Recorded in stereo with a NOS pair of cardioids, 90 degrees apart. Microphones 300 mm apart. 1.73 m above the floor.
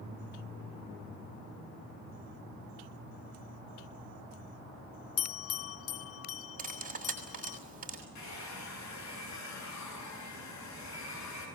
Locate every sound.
5.2 s a bell: 50° left, 0.6 m
6.6 s cutlery clinking: 25° right, 6.5 m
8.2 s a hair dryer: 65° left, 8.5 m